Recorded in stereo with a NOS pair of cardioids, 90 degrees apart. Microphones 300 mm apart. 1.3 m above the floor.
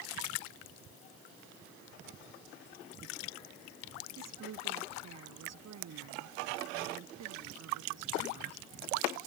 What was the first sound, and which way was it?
A woman speaking, 60° right.